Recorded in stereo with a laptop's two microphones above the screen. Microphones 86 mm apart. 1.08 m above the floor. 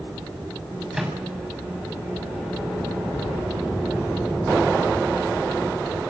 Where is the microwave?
5° right (ahead or behind), 6.5 m.